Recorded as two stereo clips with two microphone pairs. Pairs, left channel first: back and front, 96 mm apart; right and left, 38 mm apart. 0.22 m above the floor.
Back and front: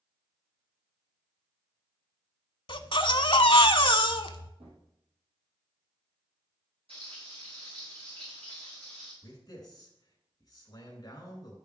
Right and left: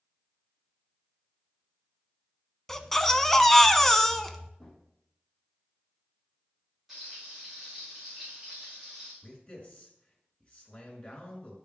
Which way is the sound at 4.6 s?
Straight ahead.